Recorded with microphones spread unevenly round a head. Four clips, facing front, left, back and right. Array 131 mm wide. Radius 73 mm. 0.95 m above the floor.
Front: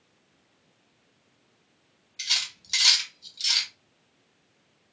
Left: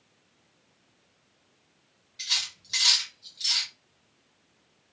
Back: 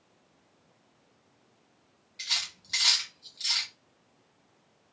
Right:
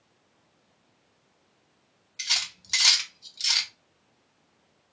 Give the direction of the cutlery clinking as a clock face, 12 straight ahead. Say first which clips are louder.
Right 3 dB, front 3 dB; 3 o'clock.